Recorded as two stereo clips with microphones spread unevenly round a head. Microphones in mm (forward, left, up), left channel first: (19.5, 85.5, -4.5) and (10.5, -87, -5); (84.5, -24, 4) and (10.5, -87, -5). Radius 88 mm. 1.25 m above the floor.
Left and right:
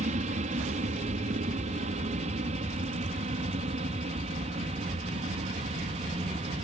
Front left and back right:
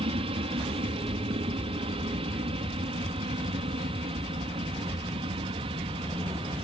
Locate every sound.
0.0 s an aircraft: 140° right; by 6.6 s 145° right